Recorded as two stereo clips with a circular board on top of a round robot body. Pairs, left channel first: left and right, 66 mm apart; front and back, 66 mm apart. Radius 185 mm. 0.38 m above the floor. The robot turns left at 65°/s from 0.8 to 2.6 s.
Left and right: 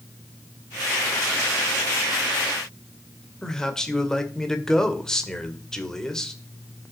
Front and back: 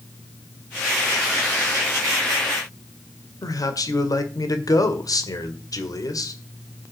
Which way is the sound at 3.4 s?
10° left.